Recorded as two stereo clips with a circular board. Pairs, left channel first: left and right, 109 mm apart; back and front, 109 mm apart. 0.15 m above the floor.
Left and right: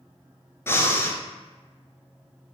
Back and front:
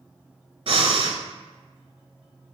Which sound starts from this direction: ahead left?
Breathing, at 0.7 s.